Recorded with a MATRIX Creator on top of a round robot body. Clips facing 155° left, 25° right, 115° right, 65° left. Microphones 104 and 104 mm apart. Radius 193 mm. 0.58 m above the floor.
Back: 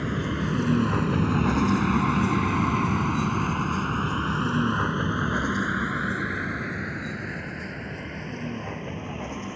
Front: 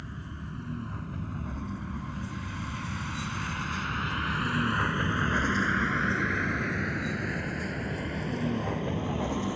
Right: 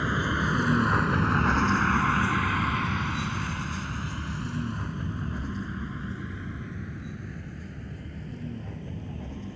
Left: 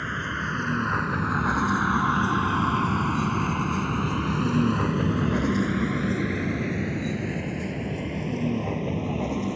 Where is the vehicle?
170° left; by 9.6 s 55° left.